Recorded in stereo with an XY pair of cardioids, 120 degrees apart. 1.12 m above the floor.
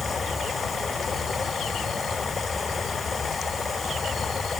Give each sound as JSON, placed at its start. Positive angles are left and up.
{"t": 0.0, "sound": "running water", "azimuth_deg": 25}